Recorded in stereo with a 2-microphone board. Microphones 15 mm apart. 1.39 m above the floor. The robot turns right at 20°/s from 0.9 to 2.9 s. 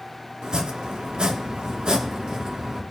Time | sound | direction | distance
0.4 | chopping | 85° right | 1.4 m